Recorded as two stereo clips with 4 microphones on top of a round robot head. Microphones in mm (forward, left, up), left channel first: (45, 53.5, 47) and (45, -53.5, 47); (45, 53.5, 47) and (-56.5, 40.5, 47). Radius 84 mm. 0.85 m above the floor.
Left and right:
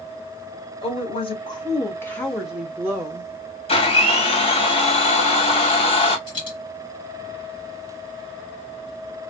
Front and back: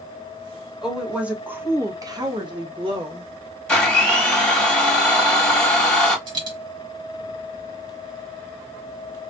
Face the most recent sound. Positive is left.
turn(degrees=150)